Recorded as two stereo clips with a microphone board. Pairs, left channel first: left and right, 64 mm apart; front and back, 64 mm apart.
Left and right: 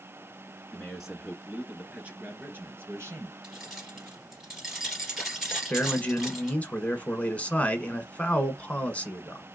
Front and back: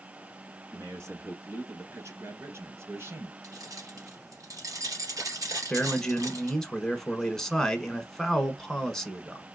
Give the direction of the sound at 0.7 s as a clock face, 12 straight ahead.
6 o'clock.